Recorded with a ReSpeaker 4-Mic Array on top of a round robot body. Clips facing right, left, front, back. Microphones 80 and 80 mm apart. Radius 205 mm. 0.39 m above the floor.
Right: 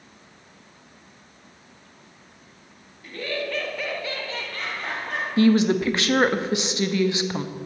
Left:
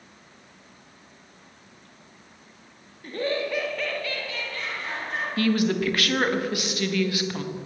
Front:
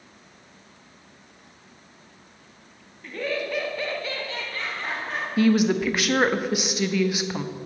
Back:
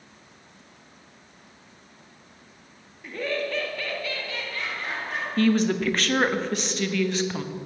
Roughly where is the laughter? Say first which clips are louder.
Left 3 dB, even; left.